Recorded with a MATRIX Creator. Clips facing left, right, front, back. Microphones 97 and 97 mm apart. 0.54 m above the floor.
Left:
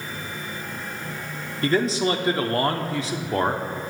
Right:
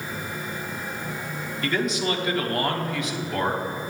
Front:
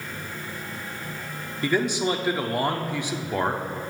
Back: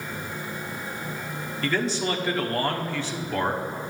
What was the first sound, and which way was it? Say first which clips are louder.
A man speaking: left 4 dB, front 3 dB; 65° left.